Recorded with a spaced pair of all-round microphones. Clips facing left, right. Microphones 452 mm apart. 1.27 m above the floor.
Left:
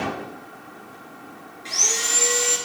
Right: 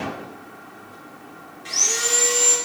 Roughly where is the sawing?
Right.